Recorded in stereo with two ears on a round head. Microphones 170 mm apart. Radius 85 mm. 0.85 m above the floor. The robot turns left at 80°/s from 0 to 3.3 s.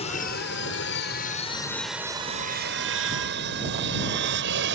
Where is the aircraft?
30° left (ahead or behind); by 4.8 s 65° right (ahead or behind).